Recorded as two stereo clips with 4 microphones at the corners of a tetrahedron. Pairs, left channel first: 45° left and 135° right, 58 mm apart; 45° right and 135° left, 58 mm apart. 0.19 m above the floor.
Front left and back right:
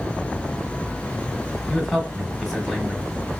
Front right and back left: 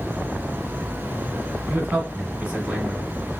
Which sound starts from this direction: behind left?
A man speaking, at 1.7 s.